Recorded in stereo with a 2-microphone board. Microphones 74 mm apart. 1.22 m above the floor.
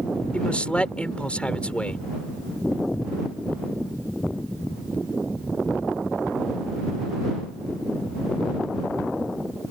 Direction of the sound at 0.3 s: 15° left (ahead or behind).